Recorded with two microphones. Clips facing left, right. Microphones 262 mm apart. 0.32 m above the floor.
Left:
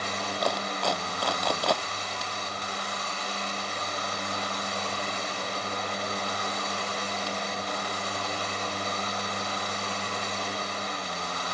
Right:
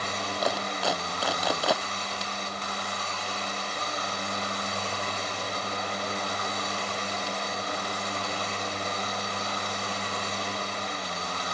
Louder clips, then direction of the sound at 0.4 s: Even; 5° right (ahead or behind).